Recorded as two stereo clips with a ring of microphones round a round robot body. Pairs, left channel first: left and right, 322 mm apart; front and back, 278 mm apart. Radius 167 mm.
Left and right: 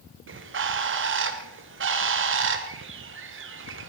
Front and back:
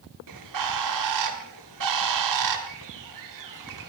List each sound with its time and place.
0.3 s a bird: 145° right, 2.0 m